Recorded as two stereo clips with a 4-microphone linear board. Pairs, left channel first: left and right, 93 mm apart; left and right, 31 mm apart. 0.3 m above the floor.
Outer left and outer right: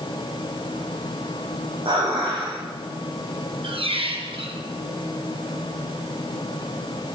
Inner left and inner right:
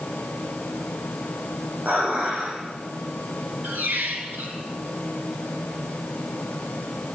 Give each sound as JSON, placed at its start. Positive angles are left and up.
{"t": 1.9, "sound": "dishes clattering", "side_deg": -75, "distance_m": 9.5}
{"t": 3.6, "sound": "a squeak", "side_deg": -80, "distance_m": 2.5}